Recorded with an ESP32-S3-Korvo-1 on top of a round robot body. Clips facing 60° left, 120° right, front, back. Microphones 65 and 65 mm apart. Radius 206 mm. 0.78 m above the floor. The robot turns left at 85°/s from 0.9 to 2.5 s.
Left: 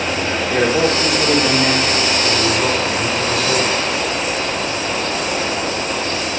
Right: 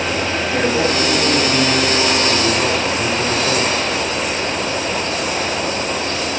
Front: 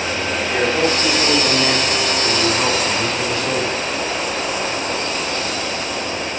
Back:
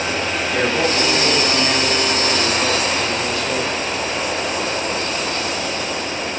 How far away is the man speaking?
About 2 m.